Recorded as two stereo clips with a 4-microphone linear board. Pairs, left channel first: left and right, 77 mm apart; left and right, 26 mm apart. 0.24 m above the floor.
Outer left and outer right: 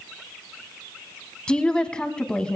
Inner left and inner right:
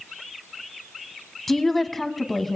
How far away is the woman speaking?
About 1.6 m.